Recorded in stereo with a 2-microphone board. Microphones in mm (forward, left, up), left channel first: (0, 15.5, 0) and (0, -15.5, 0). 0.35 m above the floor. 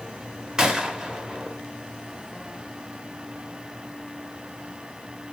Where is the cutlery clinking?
No cutlery clinking in this recording.